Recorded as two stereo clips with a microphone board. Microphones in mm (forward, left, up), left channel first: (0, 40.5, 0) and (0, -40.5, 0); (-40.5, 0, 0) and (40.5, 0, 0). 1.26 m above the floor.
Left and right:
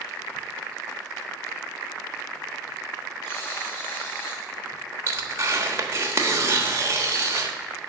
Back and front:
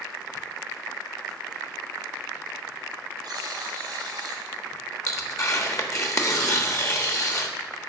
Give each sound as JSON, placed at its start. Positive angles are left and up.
{"t": 3.2, "sound": "a buzzer", "azimuth_deg": 35, "distance_m": 2.5}
{"t": 5.1, "sound": "tearing paper", "azimuth_deg": -140, "distance_m": 1.2}